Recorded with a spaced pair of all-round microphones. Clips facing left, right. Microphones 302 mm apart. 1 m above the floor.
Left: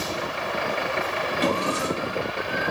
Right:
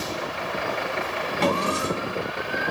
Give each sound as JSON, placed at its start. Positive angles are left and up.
{"t": 1.4, "sound": "a drawer", "side_deg": -55, "distance_m": 1.9}